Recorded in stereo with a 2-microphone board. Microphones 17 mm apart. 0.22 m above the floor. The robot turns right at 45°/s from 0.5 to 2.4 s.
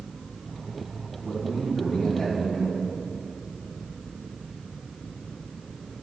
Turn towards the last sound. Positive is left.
turn(degrees=160)